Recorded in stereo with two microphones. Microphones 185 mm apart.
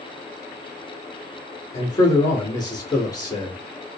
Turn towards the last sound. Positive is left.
turn(degrees=20)  # may be behind; listen again after turning